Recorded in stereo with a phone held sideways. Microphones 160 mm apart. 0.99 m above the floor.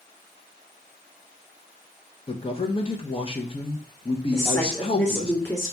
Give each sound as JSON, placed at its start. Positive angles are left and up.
{"t": 2.3, "sound": "a man speaking", "side_deg": 35, "distance_m": 0.7}
{"t": 4.3, "sound": "a woman speaking", "side_deg": 15, "distance_m": 1.8}